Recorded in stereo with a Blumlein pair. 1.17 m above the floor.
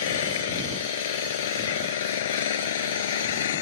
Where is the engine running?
60° left.